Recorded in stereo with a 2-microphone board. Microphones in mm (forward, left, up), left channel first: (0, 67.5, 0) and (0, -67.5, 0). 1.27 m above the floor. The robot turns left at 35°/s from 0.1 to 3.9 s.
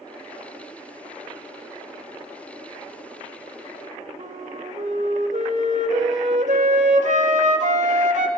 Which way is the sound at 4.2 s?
60° right (ahead or behind).